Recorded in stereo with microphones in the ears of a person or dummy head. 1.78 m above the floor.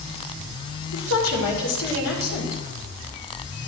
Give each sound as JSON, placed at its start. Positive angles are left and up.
{"t": 0.9, "sound": "a woman speaking", "side_deg": 85, "distance_m": 6.0}